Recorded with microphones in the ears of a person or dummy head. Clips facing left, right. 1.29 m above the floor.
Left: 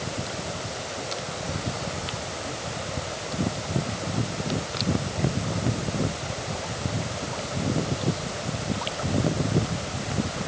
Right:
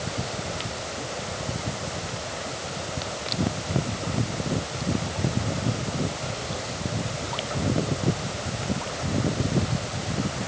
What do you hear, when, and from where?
Only background noise.